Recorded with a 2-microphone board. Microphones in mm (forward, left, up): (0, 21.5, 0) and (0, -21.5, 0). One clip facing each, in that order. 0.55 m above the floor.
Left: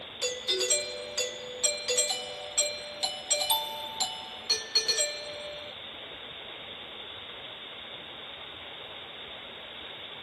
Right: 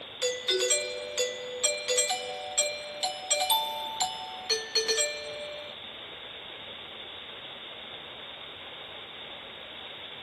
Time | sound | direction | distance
0.2 | a doorbell | 30° right (ahead or behind) | 2 m